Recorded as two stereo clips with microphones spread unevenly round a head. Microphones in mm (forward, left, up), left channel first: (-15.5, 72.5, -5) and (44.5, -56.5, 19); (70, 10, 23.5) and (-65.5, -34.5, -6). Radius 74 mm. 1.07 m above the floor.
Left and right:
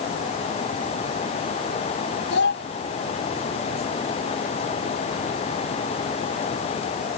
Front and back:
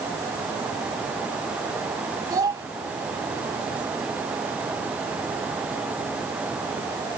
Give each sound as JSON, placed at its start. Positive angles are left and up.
{"t": 2.3, "sound": "a child speaking", "azimuth_deg": 130}